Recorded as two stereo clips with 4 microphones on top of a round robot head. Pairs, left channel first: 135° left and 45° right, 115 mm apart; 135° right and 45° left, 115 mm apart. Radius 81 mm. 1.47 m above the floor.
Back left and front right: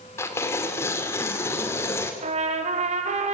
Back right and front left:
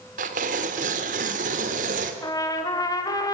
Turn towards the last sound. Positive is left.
turn(degrees=-75)